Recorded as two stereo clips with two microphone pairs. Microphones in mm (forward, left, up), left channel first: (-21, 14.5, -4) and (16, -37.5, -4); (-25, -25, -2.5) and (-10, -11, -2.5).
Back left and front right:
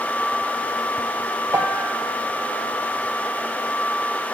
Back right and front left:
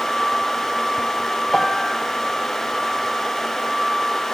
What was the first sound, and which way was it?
A piano, 65° right.